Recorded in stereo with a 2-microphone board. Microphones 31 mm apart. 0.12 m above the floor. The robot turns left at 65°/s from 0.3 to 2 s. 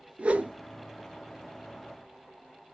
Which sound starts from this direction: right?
A whoosh, at 0.2 s.